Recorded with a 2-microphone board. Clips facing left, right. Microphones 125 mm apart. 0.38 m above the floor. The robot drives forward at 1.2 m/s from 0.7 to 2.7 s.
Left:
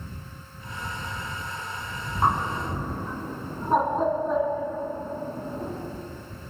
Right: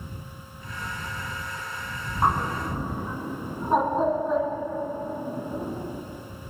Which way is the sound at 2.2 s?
Centre (ahead or behind).